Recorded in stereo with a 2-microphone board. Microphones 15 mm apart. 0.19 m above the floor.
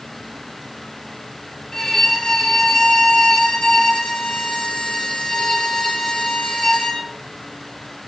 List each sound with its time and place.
1.7 s a violin: 35° left (ahead or behind), 2.5 m